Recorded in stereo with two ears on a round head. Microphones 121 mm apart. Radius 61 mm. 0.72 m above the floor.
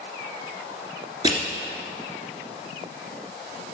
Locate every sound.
1.2 s crushing: 35° right (ahead or behind), 2.0 m